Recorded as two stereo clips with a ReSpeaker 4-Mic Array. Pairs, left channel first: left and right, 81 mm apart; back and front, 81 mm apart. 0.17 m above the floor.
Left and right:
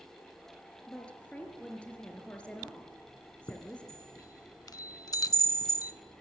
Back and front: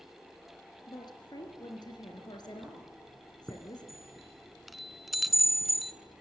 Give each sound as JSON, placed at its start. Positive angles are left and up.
{"t": 0.9, "sound": "a woman speaking", "azimuth_deg": 165, "distance_m": 3.5}
{"t": 3.5, "sound": "a chime", "azimuth_deg": 90, "distance_m": 0.7}